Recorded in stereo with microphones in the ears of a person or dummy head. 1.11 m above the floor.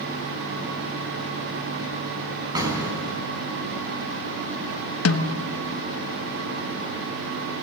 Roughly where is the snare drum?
Left.